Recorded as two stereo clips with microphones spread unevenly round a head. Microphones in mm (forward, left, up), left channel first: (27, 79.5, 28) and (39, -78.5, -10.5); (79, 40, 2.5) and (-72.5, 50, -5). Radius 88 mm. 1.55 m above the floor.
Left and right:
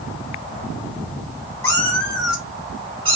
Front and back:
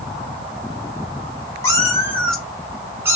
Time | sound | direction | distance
1.6 | a cat meowing | 50° left | 1.0 m